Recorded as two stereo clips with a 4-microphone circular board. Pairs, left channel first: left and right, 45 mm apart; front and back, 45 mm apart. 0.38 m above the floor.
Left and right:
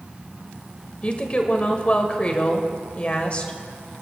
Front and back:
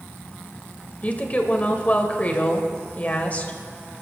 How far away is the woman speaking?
About 1.7 m.